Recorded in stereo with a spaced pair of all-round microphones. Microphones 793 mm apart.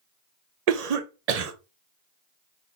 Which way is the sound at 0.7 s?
55° right (ahead or behind).